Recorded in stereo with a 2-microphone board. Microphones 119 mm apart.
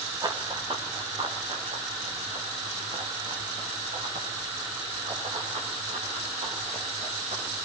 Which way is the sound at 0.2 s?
35° right (ahead or behind).